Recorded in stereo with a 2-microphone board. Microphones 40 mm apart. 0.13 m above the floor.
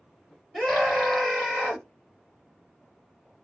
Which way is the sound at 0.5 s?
5° left (ahead or behind).